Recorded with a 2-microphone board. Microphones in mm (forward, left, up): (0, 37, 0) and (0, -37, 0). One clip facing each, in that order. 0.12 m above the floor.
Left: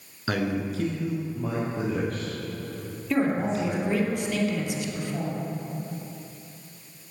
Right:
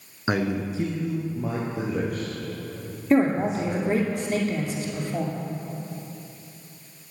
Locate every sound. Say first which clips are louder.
0.3 s a man speaking: right 2 dB; 20° right (ahead or behind), 1.3 m; by 4.1 s 5° right (ahead or behind), 6 m
3.1 s a man speaking: right 4 dB; 40° right (ahead or behind), 2 m